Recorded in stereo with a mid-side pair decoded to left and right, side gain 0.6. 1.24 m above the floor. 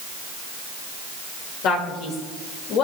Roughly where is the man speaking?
Ahead left.